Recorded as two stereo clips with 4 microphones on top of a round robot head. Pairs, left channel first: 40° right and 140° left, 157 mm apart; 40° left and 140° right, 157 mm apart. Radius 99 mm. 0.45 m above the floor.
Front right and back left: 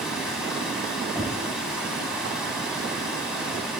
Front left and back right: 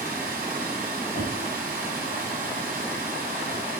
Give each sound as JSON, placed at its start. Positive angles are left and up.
{"t": 0.0, "sound": "running water", "azimuth_deg": -135, "distance_m": 1.7}
{"t": 1.1, "sound": "knocking", "azimuth_deg": 30, "distance_m": 1.9}